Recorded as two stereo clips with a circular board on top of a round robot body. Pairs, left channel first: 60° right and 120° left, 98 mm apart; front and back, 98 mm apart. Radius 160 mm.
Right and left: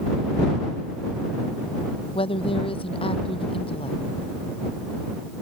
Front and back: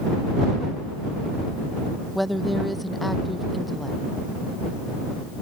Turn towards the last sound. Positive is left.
turn(degrees=-90)